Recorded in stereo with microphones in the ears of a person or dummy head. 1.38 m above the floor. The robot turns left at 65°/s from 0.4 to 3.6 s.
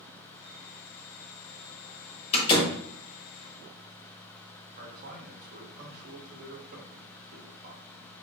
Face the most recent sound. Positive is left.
turn(degrees=-50)  # may be behind; listen again after turning